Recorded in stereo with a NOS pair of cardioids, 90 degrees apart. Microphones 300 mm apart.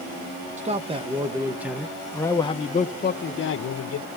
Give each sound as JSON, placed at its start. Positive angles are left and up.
{"t": 0.6, "sound": "a man speaking", "azimuth_deg": -25, "distance_m": 1.6}